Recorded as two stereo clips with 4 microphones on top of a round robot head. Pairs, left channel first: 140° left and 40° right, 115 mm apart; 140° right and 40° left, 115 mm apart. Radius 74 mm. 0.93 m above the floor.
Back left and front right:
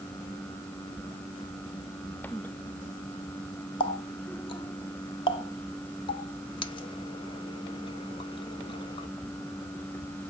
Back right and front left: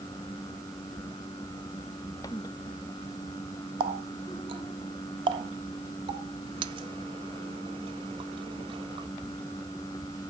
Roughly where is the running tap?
Left.